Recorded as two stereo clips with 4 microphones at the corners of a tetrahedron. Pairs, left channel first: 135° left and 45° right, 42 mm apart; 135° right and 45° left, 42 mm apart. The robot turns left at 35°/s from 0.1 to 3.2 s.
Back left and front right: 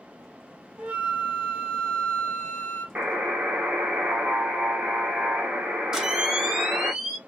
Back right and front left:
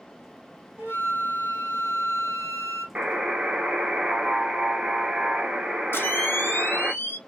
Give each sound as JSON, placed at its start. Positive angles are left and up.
{"t": 0.8, "sound": "a flute", "azimuth_deg": 15, "distance_m": 2.0}
{"t": 3.0, "sound": "a buzzer", "azimuth_deg": -5, "distance_m": 1.3}
{"t": 5.9, "sound": "a camera shutter", "azimuth_deg": -120, "distance_m": 1.0}